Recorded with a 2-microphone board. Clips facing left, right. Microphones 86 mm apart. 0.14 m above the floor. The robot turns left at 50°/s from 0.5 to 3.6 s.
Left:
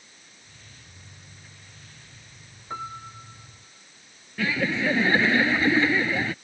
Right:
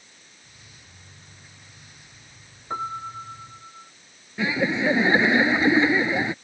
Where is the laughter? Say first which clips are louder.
Right 2 dB; 20° right (ahead or behind).